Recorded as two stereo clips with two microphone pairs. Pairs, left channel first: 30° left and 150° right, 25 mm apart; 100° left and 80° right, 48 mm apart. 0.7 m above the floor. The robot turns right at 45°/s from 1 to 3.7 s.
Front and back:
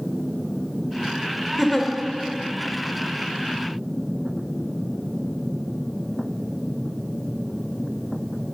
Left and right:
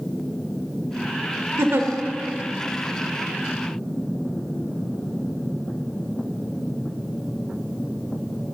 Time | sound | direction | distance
1.6 | a giggle | 60° right | 0.7 m